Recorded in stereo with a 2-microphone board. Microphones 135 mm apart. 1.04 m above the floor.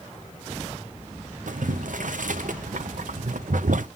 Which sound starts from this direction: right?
Boiling, at 1.5 s.